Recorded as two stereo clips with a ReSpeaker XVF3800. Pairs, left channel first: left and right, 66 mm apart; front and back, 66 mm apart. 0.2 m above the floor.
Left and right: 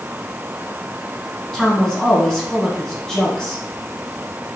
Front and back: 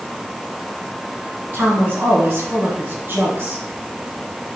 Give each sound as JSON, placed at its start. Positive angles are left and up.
{"t": 1.5, "sound": "a woman speaking", "azimuth_deg": 165, "distance_m": 1.2}